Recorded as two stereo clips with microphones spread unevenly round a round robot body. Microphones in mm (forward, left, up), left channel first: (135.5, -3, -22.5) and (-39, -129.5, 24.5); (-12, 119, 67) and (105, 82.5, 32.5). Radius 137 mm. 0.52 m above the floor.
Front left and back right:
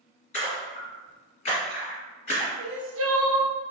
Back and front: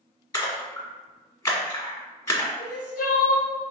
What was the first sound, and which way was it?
A splash, 105° left.